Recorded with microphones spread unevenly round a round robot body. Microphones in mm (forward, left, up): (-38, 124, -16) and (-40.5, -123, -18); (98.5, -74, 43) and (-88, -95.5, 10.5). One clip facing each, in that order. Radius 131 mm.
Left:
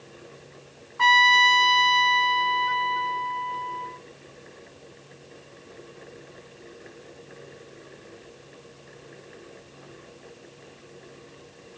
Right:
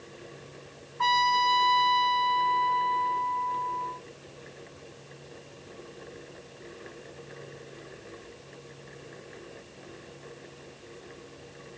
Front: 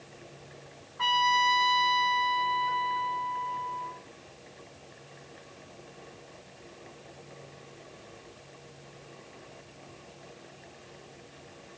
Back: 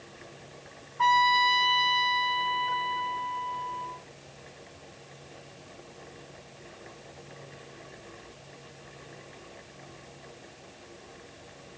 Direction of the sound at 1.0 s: 70° left.